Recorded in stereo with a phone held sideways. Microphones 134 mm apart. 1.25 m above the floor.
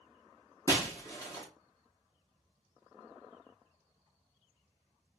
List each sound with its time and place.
0.7 s breaking glass: 25° left (ahead or behind), 1.0 m